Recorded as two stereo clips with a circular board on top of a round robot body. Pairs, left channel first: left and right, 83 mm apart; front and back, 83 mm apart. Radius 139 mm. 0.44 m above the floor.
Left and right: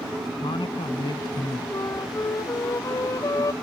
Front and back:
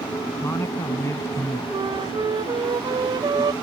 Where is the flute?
145° left.